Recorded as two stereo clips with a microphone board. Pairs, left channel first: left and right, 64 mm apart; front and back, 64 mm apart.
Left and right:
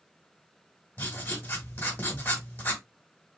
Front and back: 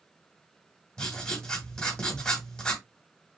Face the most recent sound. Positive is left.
turn(degrees=65)